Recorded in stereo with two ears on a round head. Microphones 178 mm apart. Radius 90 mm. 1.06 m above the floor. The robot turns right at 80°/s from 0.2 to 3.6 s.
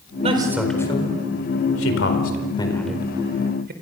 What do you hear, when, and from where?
0.2 s a man speaking: 35° right (ahead or behind), 4.5 m; by 3.7 s 55° right (ahead or behind), 4.5 m